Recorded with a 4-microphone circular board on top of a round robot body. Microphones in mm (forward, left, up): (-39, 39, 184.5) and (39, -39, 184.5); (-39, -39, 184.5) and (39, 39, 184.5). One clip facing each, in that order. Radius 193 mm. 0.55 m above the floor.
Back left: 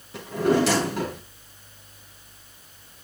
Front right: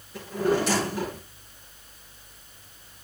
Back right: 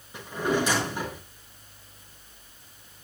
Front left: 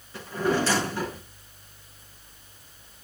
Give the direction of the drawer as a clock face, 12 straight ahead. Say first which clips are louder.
Back left 3 dB, front left 1 dB; 7 o'clock.